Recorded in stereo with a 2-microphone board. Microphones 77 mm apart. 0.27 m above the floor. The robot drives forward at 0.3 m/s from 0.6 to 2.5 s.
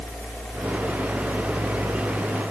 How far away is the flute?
No flute in this recording.